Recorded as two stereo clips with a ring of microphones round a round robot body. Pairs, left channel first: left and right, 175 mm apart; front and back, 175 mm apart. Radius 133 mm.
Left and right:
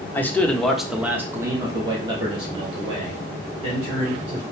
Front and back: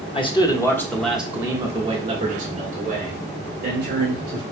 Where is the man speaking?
20° left, 1.1 m; by 4.4 s 145° right, 2.5 m.